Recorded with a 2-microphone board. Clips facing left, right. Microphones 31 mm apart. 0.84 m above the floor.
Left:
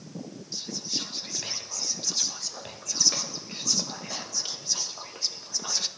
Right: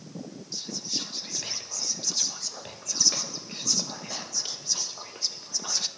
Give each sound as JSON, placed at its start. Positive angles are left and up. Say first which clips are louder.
{"t": 0.5, "sound": "whispering", "louder": "even", "side_deg": 0, "distance_m": 0.7}